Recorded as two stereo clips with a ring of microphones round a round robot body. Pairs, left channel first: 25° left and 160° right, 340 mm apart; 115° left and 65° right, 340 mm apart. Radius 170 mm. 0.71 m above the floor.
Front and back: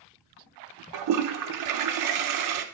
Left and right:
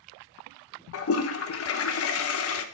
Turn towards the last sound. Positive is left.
turn(degrees=165)